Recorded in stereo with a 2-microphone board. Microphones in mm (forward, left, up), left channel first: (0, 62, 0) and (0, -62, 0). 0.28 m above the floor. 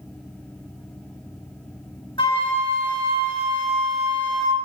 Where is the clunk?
No clunk in this recording.